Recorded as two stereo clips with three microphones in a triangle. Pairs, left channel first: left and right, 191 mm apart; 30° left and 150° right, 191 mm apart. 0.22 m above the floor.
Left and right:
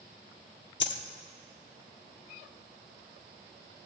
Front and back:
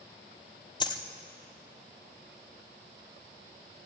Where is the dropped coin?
95° left, 0.9 m.